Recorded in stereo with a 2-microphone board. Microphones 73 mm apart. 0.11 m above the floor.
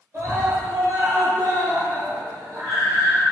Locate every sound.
0.1 s a scream: 40° right (ahead or behind), 1.9 m